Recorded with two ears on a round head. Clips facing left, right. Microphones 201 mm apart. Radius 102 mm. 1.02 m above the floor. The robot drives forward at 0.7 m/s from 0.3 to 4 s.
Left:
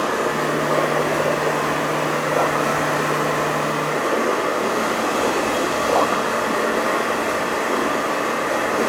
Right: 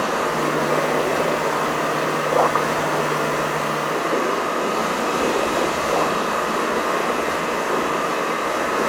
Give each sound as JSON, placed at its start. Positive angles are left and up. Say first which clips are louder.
{"t": 0.0, "sound": "running water", "louder": "left 1 dB", "side_deg": 35, "distance_m": 2.0}